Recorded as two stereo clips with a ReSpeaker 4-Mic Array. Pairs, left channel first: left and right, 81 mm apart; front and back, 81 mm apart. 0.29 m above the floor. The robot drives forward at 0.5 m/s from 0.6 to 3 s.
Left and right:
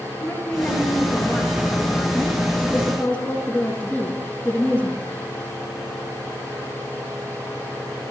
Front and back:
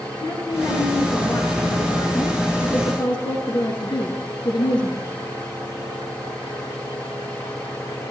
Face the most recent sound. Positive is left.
turn(degrees=0)